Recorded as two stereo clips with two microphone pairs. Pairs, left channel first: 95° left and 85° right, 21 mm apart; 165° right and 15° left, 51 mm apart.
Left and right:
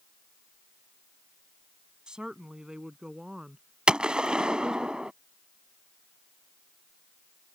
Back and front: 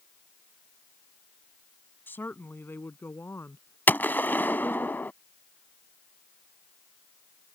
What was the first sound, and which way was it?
A woman speaking, 125° right.